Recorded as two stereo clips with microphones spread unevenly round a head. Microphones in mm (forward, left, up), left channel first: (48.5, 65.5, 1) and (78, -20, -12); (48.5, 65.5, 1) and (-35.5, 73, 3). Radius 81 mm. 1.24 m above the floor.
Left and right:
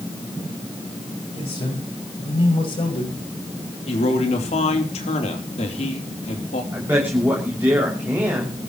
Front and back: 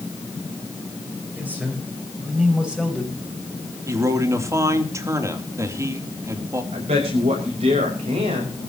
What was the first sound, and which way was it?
A man speaking, 105° left.